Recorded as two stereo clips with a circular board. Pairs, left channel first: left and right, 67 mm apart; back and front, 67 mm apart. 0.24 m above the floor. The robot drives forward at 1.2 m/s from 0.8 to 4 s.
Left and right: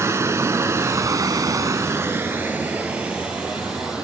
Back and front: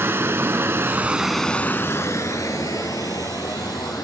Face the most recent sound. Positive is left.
turn(degrees=-165)